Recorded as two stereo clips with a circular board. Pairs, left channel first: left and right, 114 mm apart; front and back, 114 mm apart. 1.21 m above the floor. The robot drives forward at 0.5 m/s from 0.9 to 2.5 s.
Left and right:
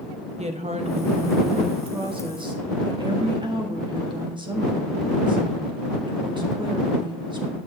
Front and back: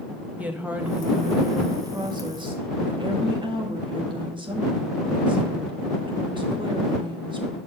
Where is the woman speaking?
105° right, 1.0 m; by 7.6 s 135° right, 1.4 m.